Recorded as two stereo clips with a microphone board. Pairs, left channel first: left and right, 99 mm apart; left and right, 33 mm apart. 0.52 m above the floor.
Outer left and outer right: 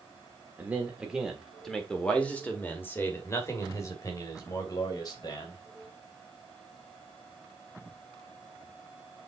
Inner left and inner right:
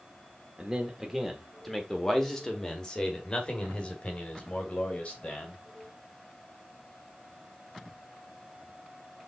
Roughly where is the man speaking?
Centre.